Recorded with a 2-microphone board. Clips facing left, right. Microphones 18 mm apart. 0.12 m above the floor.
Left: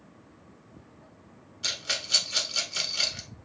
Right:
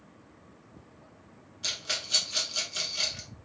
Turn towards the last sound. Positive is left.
turn(degrees=15)  # may be behind; listen again after turning